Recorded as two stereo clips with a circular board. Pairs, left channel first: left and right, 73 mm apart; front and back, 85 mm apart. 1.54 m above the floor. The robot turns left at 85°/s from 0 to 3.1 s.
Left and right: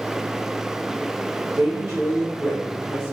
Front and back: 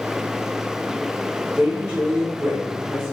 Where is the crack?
I don't hear a crack.